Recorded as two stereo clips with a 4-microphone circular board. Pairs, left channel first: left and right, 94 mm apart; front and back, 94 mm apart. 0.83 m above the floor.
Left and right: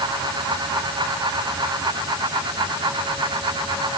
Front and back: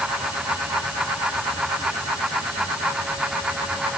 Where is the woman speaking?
I don't hear a woman speaking.